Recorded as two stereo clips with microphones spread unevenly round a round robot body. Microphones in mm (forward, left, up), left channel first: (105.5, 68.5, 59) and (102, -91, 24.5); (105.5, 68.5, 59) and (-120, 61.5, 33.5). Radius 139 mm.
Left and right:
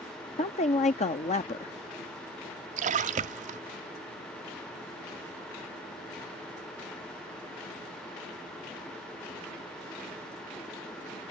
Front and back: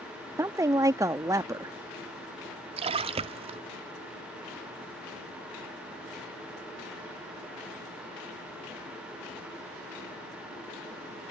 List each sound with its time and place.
0.4 s a woman speaking: 125° left
2.8 s a splash: 115° right